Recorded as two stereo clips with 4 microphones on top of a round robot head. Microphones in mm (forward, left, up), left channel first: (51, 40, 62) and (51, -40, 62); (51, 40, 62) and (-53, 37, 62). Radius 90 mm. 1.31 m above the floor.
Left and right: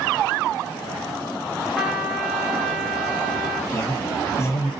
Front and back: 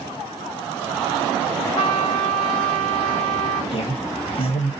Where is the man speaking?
35° left, 1.9 m.